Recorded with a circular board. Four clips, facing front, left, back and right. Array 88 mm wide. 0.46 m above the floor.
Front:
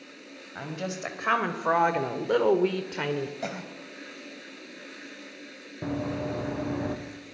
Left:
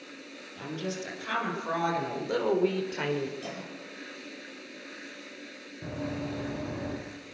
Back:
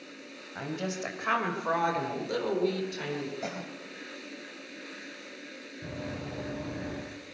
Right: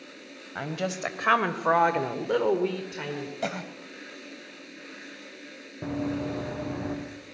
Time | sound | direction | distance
0.6 | a woman speaking | 85° right | 3 m
3.4 | a cough | 75° right | 2 m
5.8 | running footsteps | 30° right | 5 m